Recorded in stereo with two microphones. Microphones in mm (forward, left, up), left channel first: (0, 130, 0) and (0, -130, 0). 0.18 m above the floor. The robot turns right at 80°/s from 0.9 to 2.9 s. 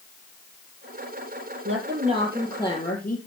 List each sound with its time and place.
1.6 s a woman speaking: 60° right, 6 m; by 3.2 s 40° left, 6 m